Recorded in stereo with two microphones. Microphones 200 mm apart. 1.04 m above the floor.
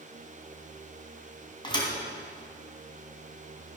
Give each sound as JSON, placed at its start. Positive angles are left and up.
{"t": 1.6, "sound": "a thud", "side_deg": 25, "distance_m": 2.5}